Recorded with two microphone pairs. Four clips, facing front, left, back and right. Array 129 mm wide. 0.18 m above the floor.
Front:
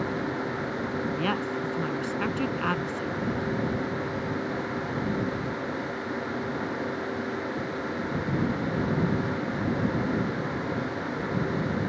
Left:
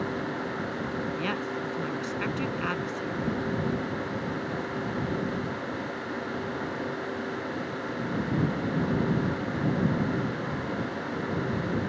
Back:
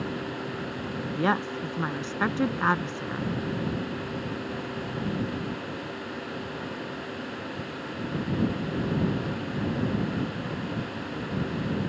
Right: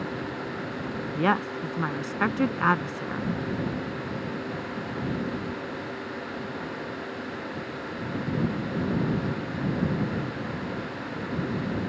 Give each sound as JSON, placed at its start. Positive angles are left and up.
{"t": 1.1, "sound": "a woman speaking", "azimuth_deg": -120}